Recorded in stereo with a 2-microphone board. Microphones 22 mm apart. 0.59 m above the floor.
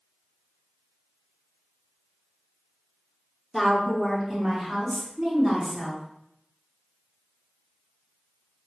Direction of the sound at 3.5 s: Centre (ahead or behind).